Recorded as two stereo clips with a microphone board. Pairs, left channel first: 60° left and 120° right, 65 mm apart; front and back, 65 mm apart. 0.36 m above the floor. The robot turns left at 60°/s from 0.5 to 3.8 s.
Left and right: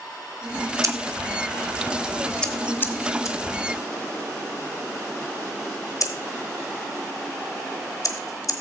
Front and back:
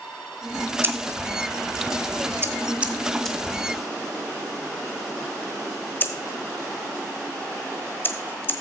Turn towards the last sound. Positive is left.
turn(degrees=55)